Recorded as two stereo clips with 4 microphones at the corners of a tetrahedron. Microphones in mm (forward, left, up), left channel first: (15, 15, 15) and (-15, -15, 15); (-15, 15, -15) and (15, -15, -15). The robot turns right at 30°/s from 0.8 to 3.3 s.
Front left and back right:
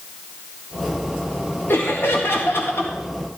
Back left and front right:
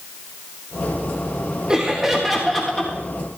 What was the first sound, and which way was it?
Laughter, 25° left.